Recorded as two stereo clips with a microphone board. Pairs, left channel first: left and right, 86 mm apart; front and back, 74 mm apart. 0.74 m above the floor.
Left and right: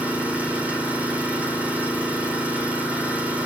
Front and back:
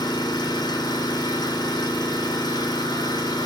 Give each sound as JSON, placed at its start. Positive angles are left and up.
{"t": 0.0, "sound": "an engine running", "azimuth_deg": -15, "distance_m": 2.5}